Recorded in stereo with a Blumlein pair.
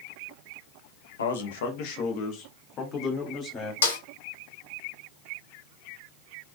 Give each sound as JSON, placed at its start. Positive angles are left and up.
{"t": 1.2, "sound": "a man speaking", "azimuth_deg": 65, "distance_m": 0.7}
{"t": 3.8, "sound": "a snare drum", "azimuth_deg": 65, "distance_m": 1.1}